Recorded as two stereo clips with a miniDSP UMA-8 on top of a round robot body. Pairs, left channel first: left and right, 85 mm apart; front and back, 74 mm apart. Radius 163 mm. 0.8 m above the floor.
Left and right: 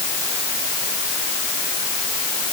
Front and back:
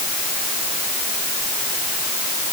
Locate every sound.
Only background noise.